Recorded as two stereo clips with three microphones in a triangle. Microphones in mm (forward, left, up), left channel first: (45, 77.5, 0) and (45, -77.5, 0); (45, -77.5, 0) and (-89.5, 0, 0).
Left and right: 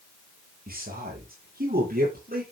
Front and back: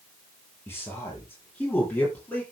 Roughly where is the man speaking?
Right.